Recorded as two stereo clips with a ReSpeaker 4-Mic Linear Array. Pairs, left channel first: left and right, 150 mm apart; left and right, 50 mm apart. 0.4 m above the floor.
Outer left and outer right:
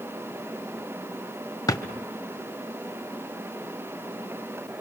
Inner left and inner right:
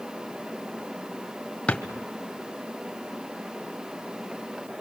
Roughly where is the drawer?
Left.